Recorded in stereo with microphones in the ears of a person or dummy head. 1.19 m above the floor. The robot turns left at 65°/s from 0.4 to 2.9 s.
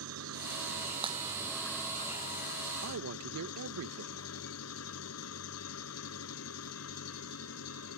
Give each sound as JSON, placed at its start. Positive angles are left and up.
{"t": 0.0, "sound": "an engine running", "azimuth_deg": -100}
{"t": 1.0, "sound": "breaking glass", "side_deg": -25}
{"t": 2.8, "sound": "a man speaking", "side_deg": -75}